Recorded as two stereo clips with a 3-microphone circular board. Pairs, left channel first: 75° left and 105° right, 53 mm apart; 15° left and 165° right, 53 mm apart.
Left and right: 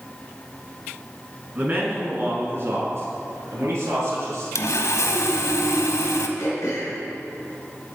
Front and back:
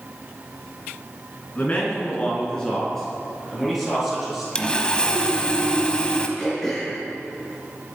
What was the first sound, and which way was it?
A man speaking, 50° right.